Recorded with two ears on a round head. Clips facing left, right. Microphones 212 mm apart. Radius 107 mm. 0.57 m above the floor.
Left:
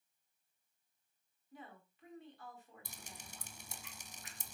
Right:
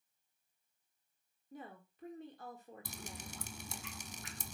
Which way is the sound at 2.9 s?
60° right (ahead or behind).